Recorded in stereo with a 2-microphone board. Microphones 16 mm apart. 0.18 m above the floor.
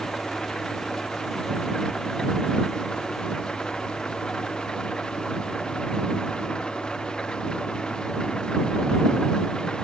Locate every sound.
0.0 s an engine running: 70° left (ahead or behind)